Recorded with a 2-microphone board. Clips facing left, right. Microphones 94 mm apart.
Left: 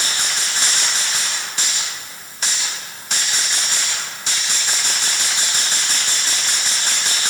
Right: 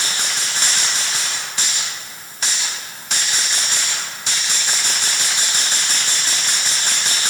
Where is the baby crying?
I don't hear a baby crying.